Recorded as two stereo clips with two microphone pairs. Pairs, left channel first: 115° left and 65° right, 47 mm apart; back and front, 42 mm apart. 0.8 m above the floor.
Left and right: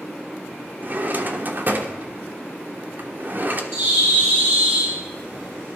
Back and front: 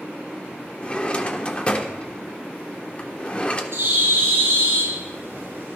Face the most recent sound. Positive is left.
turn(degrees=-25)